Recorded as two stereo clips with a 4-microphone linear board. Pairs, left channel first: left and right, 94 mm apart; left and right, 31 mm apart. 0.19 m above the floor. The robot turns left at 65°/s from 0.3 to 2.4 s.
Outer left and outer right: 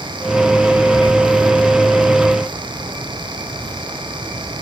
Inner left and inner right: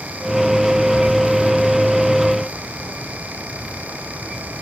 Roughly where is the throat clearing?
I don't hear throat clearing.